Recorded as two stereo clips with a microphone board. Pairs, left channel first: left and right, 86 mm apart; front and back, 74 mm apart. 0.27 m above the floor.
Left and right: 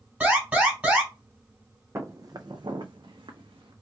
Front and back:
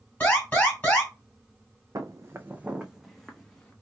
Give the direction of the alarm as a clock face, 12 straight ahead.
1 o'clock.